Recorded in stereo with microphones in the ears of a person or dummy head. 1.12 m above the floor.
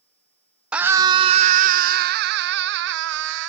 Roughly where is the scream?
Centre.